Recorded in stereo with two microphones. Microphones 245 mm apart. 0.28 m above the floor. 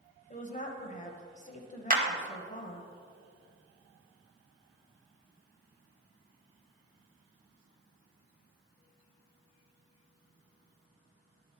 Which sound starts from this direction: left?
A woman speaking, at 0.3 s.